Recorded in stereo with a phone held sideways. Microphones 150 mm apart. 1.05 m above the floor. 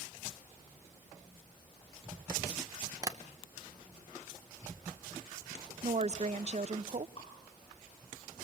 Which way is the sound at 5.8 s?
50° right (ahead or behind).